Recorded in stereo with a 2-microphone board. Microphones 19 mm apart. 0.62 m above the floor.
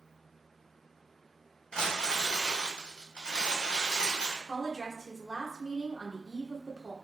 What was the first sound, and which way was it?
Crumpling, 60° left (ahead or behind).